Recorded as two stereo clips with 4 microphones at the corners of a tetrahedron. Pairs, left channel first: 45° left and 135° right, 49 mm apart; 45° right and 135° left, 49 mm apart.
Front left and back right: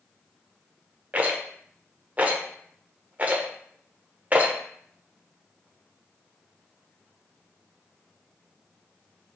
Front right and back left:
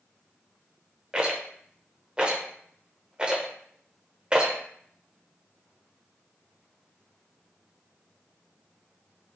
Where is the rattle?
170° right, 0.6 m.